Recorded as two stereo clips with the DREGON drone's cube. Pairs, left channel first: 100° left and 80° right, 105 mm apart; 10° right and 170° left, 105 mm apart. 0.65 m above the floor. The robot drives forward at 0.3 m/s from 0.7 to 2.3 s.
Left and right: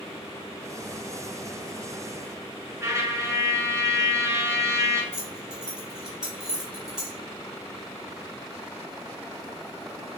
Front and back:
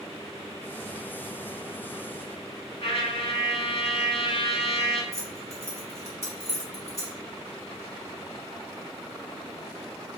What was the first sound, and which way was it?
A trumpet, 20° right.